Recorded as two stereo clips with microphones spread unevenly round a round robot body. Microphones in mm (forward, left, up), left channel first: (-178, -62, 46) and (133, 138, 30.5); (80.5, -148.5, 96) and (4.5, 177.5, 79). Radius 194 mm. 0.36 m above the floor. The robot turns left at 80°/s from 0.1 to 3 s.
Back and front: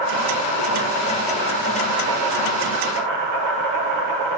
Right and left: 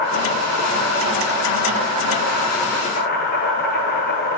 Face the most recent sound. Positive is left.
turn(degrees=-15)